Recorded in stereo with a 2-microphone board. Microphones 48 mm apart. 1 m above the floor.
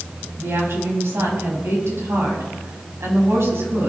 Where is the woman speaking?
55° right (ahead or behind), 6.5 m.